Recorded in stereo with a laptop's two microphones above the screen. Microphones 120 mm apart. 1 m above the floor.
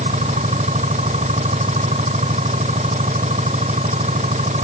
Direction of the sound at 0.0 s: 85° right.